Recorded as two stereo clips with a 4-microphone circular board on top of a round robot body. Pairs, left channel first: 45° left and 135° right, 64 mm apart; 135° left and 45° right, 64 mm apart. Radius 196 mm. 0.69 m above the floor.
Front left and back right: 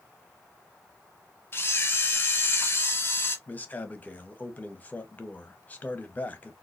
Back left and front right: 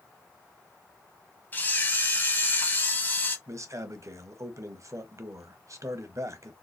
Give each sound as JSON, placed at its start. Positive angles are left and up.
{"t": 1.5, "sound": "a camera shutter", "azimuth_deg": 85, "distance_m": 0.9}
{"t": 3.5, "sound": "a man speaking", "azimuth_deg": -15, "distance_m": 0.9}